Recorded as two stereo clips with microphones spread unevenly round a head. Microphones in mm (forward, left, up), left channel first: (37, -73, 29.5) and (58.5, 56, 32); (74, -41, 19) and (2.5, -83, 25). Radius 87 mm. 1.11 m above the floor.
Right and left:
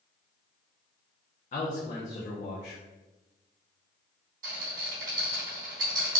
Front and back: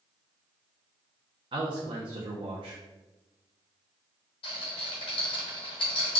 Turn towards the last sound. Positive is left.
turn(degrees=75)